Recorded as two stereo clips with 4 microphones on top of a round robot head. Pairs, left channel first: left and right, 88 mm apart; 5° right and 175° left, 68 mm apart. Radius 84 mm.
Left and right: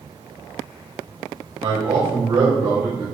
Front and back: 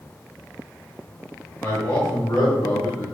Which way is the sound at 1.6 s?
65° right.